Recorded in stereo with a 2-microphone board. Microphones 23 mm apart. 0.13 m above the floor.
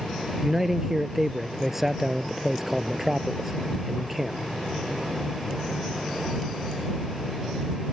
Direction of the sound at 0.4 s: 15° right (ahead or behind).